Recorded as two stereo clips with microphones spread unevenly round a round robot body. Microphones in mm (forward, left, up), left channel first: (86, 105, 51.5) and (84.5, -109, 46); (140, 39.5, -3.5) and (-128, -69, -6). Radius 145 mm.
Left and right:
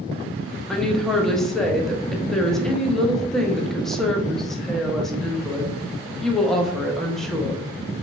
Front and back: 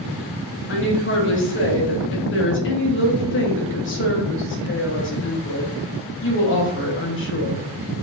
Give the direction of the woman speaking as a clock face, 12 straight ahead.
12 o'clock.